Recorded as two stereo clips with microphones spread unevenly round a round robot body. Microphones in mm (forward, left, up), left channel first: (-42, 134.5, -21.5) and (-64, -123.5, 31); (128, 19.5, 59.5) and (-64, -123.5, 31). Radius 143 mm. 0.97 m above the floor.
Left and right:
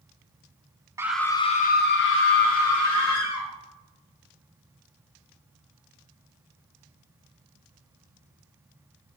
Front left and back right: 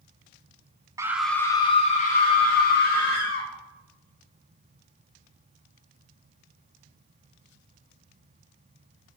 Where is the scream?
175° left, 0.5 m; by 3.5 s 90° left, 1.5 m.